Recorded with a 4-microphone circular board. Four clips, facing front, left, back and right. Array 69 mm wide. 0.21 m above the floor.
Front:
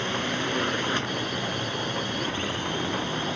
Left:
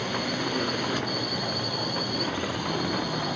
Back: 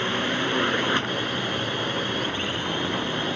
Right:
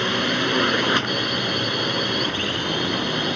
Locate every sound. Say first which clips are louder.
0.0 s a drone: right 7 dB, back 3 dB; 110° right